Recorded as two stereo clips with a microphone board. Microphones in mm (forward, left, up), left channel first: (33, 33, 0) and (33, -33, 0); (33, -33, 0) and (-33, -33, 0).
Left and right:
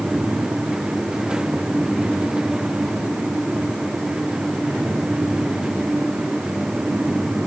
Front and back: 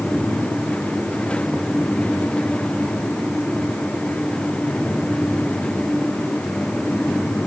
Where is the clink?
No clink in this recording.